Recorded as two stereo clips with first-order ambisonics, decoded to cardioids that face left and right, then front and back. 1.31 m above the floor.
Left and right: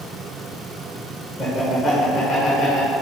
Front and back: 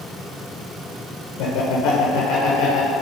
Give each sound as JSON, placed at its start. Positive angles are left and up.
{"t": 1.4, "sound": "laughter", "azimuth_deg": 0, "distance_m": 1.1}